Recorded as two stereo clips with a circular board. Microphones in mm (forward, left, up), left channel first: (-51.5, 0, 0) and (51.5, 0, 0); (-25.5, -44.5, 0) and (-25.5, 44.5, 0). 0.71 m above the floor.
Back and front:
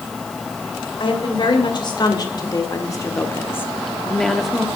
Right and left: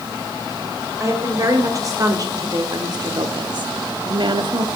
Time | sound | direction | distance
1.0 | a woman speaking | 145° left | 2.5 m